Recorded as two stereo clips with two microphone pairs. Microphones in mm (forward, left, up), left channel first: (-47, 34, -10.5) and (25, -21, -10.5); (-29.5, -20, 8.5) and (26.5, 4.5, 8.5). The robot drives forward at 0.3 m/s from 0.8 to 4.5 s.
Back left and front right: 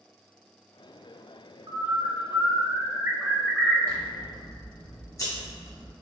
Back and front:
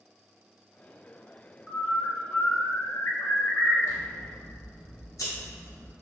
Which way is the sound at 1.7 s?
70° right.